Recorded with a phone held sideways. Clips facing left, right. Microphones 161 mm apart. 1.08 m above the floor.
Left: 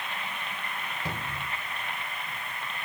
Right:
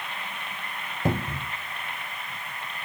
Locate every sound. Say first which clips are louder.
1.1 s a cupboard door: right 12 dB; 50° right (ahead or behind), 0.8 m